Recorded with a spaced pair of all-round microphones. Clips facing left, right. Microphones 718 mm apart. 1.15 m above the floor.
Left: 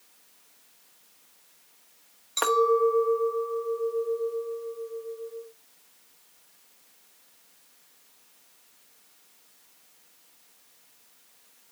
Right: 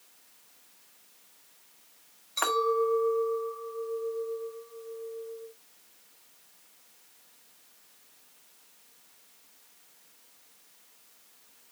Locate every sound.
2.4 s a clink: 65° left (ahead or behind), 1.4 m